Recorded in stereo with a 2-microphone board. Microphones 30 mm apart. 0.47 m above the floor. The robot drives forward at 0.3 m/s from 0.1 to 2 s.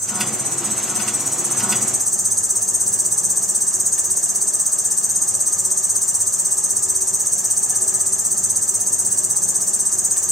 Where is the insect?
Centre (ahead or behind), 1.0 m; by 10.3 s 5° right (ahead or behind), 0.5 m.